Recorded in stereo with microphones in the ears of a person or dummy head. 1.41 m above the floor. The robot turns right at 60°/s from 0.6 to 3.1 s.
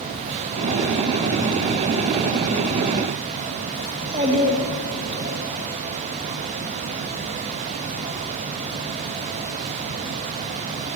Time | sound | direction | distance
3.9 | a child speaking | 30° right (ahead or behind) | 1.5 m